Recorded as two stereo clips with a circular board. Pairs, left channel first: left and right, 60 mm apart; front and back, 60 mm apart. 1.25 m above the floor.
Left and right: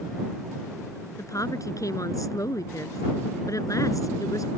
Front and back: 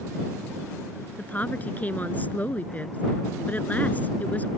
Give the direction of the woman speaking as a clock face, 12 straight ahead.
10 o'clock.